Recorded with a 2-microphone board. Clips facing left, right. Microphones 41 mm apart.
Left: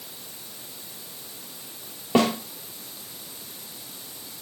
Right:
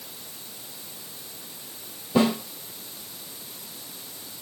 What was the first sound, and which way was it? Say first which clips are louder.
A snare drum: left 1 dB; 70° left (ahead or behind).